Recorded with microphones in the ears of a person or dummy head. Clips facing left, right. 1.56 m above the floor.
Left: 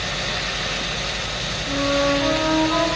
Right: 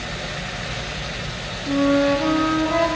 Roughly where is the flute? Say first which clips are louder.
Right 4 dB; right.